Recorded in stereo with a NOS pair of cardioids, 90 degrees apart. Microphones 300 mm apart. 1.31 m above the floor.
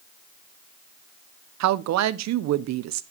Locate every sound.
1.6 s a woman speaking: 70° right, 0.7 m